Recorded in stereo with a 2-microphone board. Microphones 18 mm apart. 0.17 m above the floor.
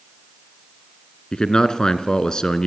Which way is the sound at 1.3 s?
45° left (ahead or behind).